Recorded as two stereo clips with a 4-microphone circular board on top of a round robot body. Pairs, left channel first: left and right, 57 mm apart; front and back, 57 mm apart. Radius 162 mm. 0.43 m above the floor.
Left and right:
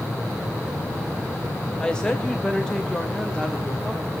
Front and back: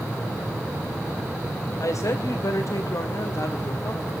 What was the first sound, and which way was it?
A woman speaking, 15° left.